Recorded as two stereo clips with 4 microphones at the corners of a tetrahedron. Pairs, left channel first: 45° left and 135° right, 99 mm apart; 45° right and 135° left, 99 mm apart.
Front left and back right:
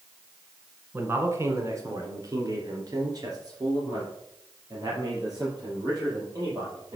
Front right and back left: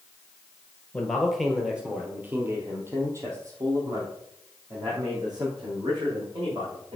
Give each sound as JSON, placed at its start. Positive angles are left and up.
{"t": 0.9, "sound": "a man speaking", "azimuth_deg": -110, "distance_m": 1.5}